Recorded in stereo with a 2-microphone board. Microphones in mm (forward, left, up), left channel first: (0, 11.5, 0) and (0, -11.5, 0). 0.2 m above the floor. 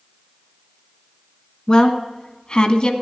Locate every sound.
1.7 s a woman speaking: 35° left (ahead or behind), 1.6 m; by 2.9 s 40° left (ahead or behind), 1.3 m